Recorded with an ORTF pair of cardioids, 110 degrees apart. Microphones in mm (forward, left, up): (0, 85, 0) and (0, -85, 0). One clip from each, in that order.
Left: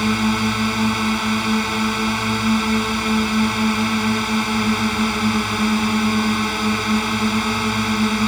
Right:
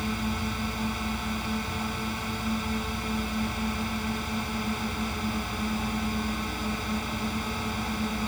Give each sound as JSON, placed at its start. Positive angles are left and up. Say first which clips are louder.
{"t": 0.0, "sound": "a drone", "louder": "left 12 dB", "azimuth_deg": 65}